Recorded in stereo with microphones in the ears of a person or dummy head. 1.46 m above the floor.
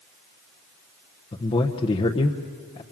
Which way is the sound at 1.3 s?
25° left (ahead or behind).